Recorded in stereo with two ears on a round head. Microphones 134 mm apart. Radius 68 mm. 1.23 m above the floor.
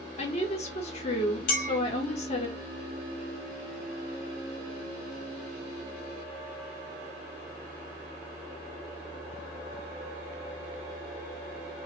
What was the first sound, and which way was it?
A woman speaking, 45° left (ahead or behind).